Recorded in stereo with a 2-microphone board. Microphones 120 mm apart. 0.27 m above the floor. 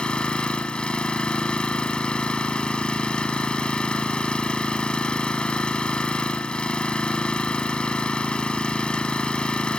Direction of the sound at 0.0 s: 10° left (ahead or behind).